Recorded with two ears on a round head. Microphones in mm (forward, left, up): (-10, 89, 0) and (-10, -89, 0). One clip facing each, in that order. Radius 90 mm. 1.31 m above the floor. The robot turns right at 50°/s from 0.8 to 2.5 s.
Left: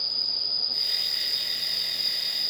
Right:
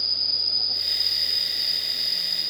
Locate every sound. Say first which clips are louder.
0.0 s an insect: right 2 dB; 105° right, 0.9 m; by 2.5 s 20° right, 0.9 m